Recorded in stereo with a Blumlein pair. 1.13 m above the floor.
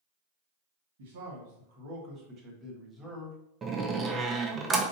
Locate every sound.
1.0 s a man speaking: 60° right, 1.7 m; by 3.4 s 5° right, 1.3 m
3.6 s a door slam: 20° right, 0.7 m